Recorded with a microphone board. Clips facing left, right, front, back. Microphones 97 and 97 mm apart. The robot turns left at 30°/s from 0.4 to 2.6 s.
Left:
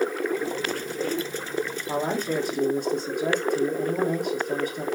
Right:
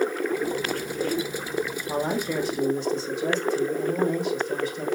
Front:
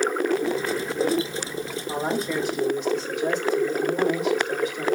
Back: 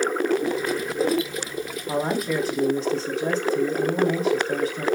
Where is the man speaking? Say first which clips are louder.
Left 1 dB, back 2 dB; 145° left, 4.5 m; by 4.9 s 125° left, 4.5 m.